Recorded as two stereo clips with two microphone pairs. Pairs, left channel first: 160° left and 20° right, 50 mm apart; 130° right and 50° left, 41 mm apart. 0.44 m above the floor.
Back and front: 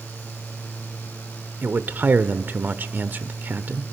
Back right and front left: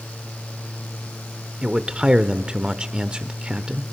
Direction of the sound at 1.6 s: 5° right.